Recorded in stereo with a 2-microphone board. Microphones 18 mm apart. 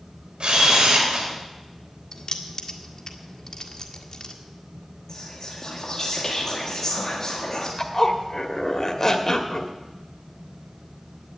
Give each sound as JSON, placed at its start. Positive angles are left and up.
{"t": 0.4, "sound": "a camera shutter", "side_deg": -60, "distance_m": 4.0}
{"t": 2.1, "sound": "keys jangling", "side_deg": 40, "distance_m": 1.5}
{"t": 5.1, "sound": "whispering", "side_deg": 35, "distance_m": 1.8}
{"t": 7.8, "sound": "a zipper", "side_deg": 30, "distance_m": 1.3}